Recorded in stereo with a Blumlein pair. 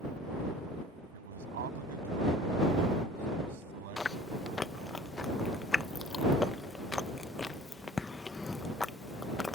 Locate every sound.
1.1 s a man speaking: 60° right; by 5.0 s 50° right
4.0 s chewing: 10° left